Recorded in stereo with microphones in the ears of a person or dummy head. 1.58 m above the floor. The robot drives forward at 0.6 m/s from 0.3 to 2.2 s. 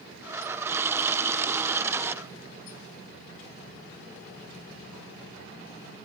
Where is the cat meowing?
No cat meowing in this recording.